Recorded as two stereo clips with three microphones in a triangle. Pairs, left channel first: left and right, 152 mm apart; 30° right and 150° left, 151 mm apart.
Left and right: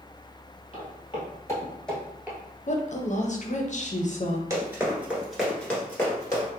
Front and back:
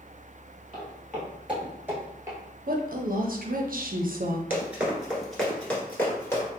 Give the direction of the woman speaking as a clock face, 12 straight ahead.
8 o'clock.